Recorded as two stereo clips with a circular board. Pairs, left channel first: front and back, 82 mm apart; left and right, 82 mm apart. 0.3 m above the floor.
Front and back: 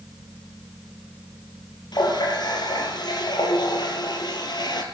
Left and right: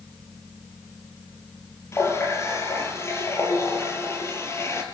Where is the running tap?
35° left, 4 m.